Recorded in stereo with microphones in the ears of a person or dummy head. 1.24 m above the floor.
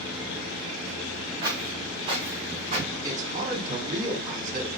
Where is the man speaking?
40° right (ahead or behind), 2.5 m.